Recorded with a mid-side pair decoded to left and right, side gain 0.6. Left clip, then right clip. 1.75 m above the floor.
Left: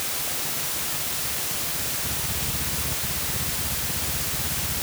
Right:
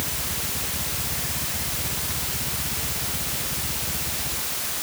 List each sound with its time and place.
Only background noise.